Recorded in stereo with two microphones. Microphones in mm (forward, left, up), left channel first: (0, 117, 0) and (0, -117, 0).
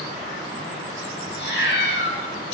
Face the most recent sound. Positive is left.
turn(degrees=50)  # may be behind; listen again after turning